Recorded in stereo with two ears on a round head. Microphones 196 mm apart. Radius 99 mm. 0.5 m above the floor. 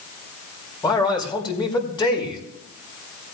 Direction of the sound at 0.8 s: 20° left (ahead or behind).